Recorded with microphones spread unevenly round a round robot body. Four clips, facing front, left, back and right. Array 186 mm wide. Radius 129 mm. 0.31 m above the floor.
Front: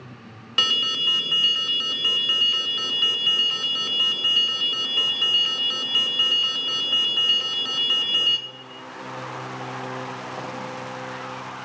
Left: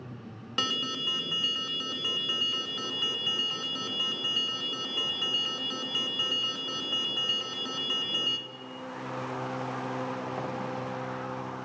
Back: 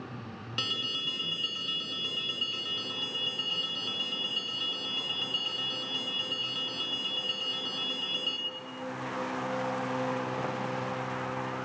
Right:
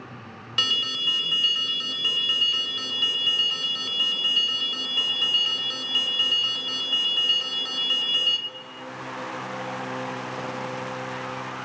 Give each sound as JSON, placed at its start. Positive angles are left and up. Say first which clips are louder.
{"t": 0.6, "sound": "an alarm", "louder": "right 1 dB, front 11 dB", "azimuth_deg": -10, "distance_m": 0.8}